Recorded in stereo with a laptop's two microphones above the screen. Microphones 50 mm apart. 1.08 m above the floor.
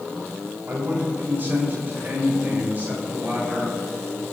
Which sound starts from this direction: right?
A man speaking, at 0.7 s.